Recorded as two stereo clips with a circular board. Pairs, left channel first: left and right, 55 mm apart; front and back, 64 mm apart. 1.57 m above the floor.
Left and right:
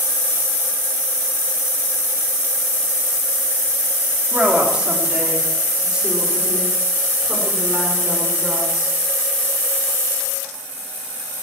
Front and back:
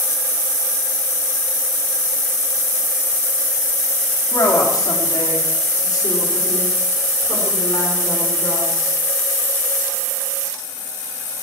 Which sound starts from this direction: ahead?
A woman speaking, at 4.3 s.